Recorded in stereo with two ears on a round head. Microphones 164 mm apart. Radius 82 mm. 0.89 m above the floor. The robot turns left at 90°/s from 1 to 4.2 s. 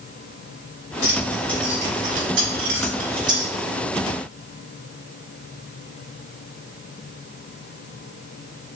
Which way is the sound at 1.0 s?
50° left (ahead or behind).